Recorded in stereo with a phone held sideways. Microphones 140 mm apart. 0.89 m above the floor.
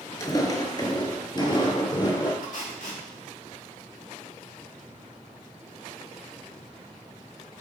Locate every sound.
0.2 s footsteps: 25° left (ahead or behind), 0.9 m; by 2.3 s 30° left (ahead or behind), 1.6 m
2.4 s tape being pulled: 70° left (ahead or behind), 2 m